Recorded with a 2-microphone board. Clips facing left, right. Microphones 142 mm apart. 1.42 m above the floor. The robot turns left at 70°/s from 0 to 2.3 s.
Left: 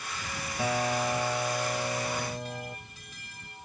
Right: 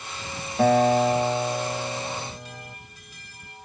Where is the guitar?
90° right; by 2.8 s 150° left.